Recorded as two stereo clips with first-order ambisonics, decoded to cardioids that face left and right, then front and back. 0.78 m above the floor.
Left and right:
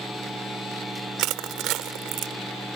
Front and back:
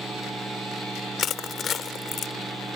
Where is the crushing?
60° right.